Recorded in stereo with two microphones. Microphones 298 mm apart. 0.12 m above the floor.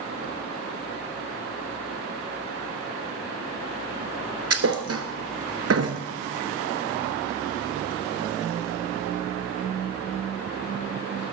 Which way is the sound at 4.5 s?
55° right (ahead or behind).